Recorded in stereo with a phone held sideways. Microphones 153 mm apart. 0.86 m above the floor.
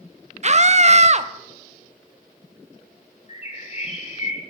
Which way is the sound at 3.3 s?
45° left (ahead or behind).